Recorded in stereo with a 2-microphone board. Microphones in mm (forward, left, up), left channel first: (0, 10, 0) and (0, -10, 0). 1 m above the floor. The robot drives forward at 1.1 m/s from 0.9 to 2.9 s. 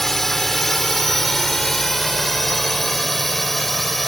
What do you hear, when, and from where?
0.0 s a drone: 15° left (ahead or behind); by 4.1 s 10° left (ahead or behind)